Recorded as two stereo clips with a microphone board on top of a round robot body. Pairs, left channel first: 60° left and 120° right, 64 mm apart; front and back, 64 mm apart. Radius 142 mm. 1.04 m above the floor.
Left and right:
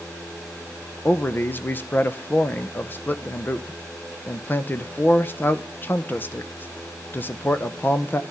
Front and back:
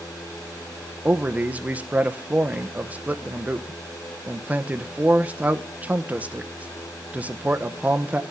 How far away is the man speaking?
About 1.1 m.